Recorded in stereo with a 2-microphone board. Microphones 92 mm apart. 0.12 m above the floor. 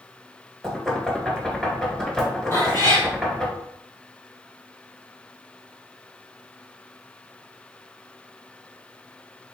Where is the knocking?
10° left (ahead or behind), 1.6 m.